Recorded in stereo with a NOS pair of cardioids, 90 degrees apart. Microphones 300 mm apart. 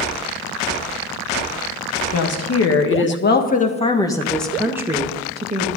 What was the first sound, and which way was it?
A woman speaking, 55° left.